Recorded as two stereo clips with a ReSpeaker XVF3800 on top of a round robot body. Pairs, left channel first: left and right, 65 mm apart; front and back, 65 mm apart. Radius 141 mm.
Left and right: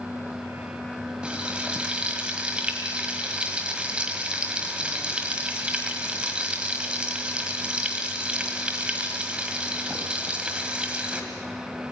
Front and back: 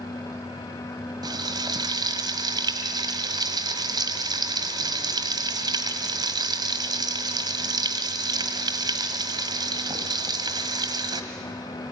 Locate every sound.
1.2 s frying: 165° right, 1.5 m